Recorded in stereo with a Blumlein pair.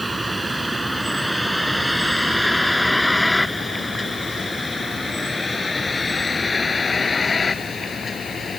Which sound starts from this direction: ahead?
A vehicle, at 0.0 s.